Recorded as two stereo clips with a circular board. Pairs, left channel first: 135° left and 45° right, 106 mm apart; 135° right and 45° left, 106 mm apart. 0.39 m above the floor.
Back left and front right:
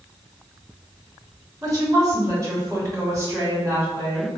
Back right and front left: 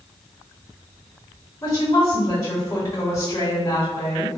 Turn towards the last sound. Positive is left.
turn(degrees=-90)